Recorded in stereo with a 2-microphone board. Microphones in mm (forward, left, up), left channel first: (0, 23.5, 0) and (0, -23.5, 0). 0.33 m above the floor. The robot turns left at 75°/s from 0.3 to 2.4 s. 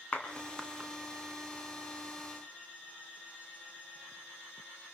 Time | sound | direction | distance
0.1 | a clap | 30° left (ahead or behind) | 2.5 m